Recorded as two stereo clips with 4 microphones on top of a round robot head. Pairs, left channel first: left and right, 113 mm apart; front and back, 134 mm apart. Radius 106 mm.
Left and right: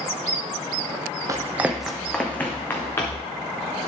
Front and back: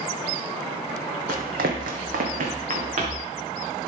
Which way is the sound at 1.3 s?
150° right.